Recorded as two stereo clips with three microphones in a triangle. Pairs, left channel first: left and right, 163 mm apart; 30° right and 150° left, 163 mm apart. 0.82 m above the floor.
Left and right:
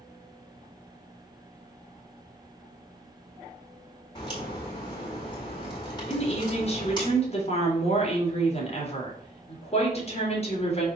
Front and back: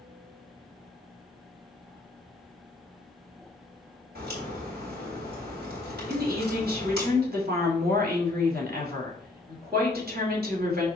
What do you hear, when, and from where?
4.2 s a crack: 150° left, 4 m
6.1 s a woman speaking: 140° left, 2.5 m